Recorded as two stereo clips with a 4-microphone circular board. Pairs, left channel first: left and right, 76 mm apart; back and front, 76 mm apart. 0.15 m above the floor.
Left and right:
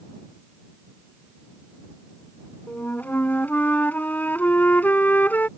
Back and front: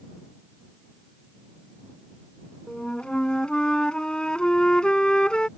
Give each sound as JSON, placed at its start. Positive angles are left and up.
{"t": 2.7, "sound": "a flute", "azimuth_deg": 120}